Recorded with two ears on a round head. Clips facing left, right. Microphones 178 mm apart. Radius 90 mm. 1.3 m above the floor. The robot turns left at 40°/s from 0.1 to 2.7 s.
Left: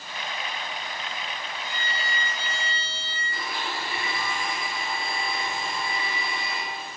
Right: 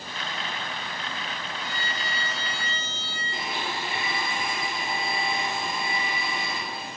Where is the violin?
70° left, 2.5 m; by 3.2 s 30° left, 2.5 m.